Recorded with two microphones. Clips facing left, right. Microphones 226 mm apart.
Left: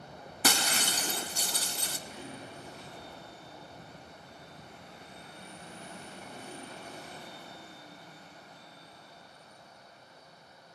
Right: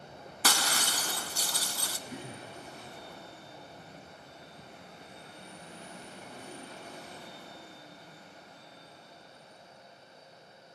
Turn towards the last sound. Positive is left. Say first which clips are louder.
# right 1 dB
turn(degrees=-55)  # may be behind; listen again after turning